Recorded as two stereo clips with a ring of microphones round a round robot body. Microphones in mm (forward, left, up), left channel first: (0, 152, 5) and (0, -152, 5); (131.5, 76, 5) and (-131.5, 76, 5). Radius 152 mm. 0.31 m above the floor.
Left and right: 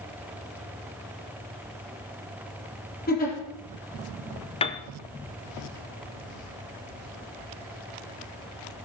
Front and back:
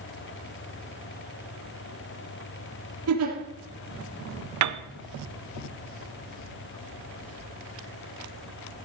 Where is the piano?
165° left, 1.1 m.